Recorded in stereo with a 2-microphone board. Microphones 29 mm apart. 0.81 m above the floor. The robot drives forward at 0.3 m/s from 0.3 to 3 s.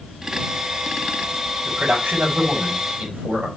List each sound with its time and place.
1.6 s a man speaking: 75° right (ahead or behind), 5 m